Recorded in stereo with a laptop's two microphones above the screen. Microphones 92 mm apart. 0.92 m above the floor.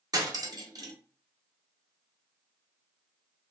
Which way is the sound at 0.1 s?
45° right (ahead or behind).